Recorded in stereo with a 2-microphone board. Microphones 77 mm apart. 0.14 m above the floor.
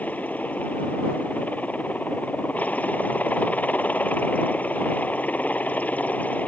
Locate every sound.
0.0 s a helicopter: 20° left (ahead or behind)